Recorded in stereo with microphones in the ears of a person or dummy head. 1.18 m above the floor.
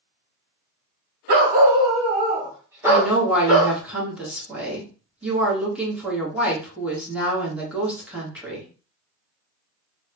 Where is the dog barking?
50° right (ahead or behind), 1.0 m; by 3.8 s centre (ahead or behind), 1.7 m.